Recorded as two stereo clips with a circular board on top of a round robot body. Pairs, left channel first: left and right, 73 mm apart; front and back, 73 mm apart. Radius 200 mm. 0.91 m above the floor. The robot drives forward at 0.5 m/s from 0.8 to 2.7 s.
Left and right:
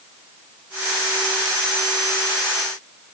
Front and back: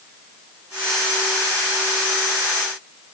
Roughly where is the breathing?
No breathing in this recording.